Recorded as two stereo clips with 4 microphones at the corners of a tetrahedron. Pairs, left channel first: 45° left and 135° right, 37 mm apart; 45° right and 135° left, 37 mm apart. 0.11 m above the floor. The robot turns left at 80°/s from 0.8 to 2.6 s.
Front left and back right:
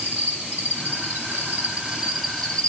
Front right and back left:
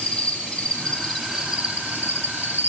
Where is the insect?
110° right, 3.5 m; by 2.7 s 110° left, 3.5 m.